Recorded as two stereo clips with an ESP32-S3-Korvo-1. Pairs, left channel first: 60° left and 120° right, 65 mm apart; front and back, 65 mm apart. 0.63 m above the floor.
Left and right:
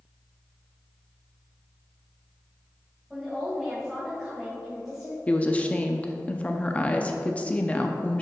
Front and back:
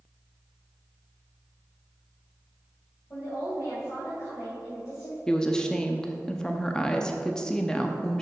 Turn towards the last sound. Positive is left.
turn(degrees=55)